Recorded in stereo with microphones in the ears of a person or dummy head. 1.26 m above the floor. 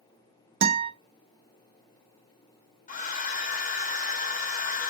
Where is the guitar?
60° right (ahead or behind), 0.8 m.